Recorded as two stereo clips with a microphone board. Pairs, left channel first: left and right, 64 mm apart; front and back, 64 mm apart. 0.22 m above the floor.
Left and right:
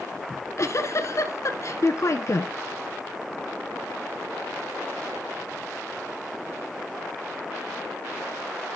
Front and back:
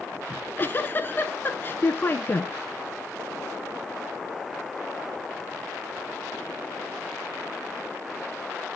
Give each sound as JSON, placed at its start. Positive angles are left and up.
{"t": 0.3, "sound": "a giggle", "azimuth_deg": 55, "distance_m": 1.1}